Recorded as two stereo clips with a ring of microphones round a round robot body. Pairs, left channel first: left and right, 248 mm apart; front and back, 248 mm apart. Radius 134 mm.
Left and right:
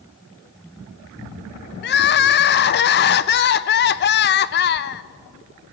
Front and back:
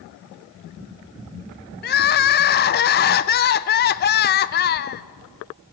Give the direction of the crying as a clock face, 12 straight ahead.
10 o'clock.